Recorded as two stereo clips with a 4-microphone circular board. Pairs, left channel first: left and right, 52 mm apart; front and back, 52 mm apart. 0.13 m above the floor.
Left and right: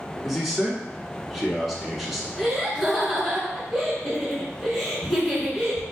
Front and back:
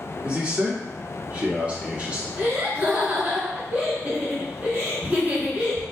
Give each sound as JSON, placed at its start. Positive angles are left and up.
{"t": 0.2, "sound": "a man speaking", "azimuth_deg": 180, "distance_m": 1.1}
{"t": 2.4, "sound": "laughter", "azimuth_deg": 180, "distance_m": 1.6}